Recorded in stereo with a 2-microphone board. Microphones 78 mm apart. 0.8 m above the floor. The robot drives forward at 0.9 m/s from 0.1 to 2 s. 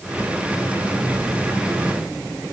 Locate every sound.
Only background noise.